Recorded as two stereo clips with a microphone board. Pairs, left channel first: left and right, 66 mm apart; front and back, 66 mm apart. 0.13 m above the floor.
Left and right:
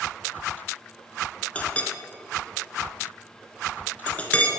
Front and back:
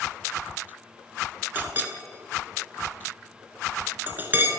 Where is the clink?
145° left, 1.1 m.